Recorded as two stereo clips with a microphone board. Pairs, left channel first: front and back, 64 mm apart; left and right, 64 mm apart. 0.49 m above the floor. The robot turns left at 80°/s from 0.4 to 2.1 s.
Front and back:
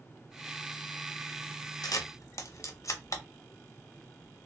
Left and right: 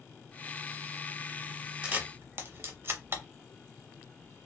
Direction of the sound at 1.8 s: 15° right.